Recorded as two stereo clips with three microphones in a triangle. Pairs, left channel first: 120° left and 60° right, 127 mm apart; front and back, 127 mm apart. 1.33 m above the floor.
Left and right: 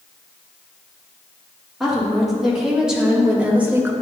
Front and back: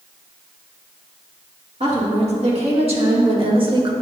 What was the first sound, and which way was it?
A woman speaking, 150° right.